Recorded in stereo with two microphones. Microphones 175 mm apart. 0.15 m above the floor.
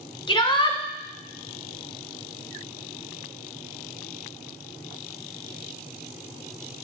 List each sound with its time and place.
0.3 s a shout: 30° left (ahead or behind), 1.4 m